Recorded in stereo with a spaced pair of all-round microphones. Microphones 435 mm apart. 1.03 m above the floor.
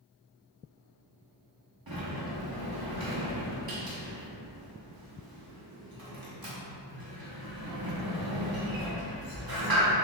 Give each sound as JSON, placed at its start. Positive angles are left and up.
{"t": 1.9, "sound": "a sliding door", "side_deg": -55, "distance_m": 0.8}